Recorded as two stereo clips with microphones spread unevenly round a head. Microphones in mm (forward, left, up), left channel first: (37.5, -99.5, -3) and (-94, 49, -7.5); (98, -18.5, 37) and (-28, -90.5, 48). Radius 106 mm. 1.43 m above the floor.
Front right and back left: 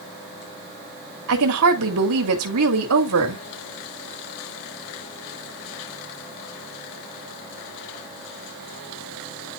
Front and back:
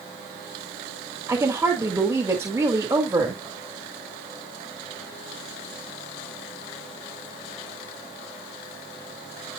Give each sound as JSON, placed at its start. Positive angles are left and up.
{"t": 1.3, "sound": "a woman speaking", "azimuth_deg": 135, "distance_m": 3.5}